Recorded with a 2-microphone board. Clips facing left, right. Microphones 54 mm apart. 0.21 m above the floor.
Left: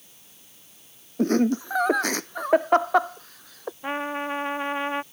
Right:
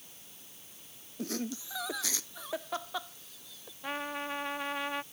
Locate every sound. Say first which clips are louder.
1.2 s laughter: left 16 dB; 45° left (ahead or behind); by 3.7 s 60° left (ahead or behind)
3.8 s a trumpet: left 7 dB; 25° left (ahead or behind)